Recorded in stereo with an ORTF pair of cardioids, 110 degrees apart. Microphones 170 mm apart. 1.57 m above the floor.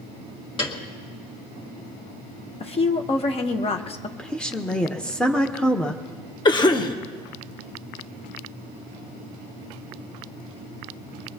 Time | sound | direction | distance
0.6 | a piano | 30° left | 2 m
2.6 | a woman speaking | 35° left | 1.2 m
4.2 | a woman speaking | 5° left | 1.1 m
6.5 | a cough | 25° left | 1.4 m